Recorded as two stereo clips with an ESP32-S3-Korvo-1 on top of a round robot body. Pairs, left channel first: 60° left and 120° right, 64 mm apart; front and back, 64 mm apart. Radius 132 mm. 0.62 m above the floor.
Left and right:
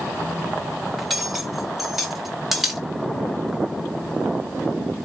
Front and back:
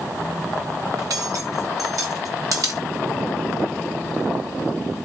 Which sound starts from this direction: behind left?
Cutlery clinking, at 1.0 s.